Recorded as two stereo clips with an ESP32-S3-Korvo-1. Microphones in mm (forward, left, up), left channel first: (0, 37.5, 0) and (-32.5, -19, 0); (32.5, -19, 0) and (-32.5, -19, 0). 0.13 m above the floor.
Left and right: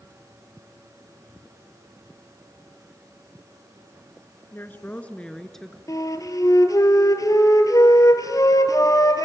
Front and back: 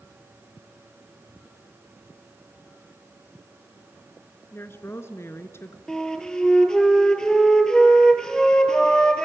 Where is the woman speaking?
25° left, 1.6 m; by 5.8 s 30° right, 1.7 m.